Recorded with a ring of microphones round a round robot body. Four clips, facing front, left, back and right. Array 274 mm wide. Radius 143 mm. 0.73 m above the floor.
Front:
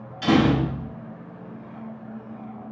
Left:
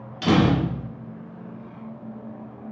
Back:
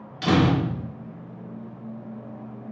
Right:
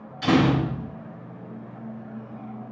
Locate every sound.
0.2 s a door slam: 125° left, 1.1 m